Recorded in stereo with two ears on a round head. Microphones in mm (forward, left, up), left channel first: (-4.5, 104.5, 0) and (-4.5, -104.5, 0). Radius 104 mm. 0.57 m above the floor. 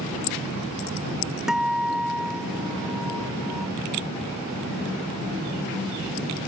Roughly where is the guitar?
Centre.